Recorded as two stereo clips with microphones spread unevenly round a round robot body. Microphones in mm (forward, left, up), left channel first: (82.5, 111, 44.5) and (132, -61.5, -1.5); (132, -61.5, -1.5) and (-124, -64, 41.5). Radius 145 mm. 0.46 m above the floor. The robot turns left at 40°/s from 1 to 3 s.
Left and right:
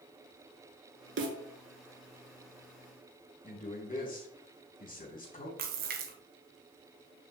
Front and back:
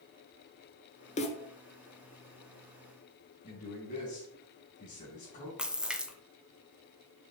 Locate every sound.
1.2 s a snare drum: 65° right, 1.4 m; by 1.4 s 75° right, 1.4 m
3.4 s a man speaking: 60° left, 4 m
5.6 s a splash: 90° right, 0.9 m